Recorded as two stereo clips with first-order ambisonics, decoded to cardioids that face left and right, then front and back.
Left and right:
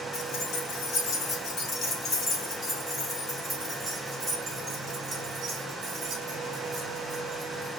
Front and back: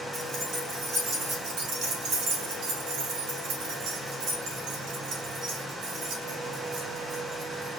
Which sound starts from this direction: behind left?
Keys jangling, at 0.1 s.